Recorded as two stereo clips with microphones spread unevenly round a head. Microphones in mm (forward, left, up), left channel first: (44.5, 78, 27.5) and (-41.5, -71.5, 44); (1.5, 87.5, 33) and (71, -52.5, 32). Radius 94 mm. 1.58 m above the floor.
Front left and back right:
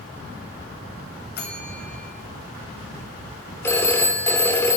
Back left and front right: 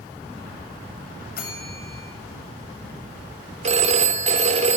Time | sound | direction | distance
1.4 | a bell | 95° left | 8 m
3.6 | a phone ringing | 20° right | 3 m